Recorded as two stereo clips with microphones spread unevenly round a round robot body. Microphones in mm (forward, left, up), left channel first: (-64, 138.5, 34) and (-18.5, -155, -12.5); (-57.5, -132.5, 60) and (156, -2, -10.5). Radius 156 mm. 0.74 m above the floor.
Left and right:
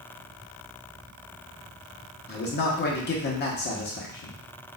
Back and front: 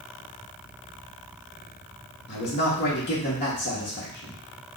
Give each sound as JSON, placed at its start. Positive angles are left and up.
{"t": 2.3, "sound": "a man speaking", "azimuth_deg": 155, "distance_m": 0.8}